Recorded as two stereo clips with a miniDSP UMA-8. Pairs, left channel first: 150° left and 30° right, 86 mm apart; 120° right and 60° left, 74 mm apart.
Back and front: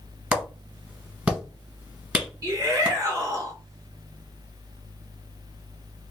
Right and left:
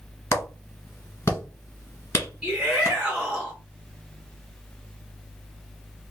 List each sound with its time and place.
0.3 s a clap: 95° right, 1.2 m
2.4 s a shout: 20° right, 2 m